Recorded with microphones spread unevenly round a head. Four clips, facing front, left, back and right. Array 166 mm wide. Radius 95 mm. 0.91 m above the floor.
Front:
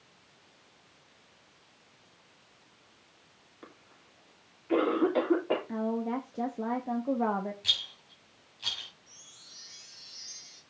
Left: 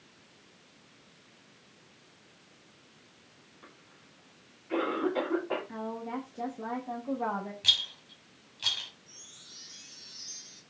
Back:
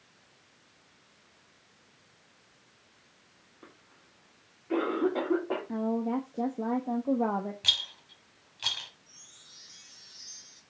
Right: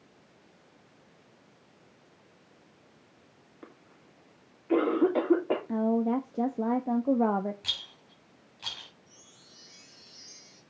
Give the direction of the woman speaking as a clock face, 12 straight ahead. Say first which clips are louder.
Right 10 dB, back 2 dB; 3 o'clock.